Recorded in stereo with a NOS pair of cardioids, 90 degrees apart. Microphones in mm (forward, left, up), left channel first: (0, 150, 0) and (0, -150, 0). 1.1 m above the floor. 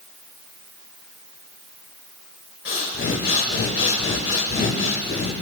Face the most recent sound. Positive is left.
turn(degrees=40)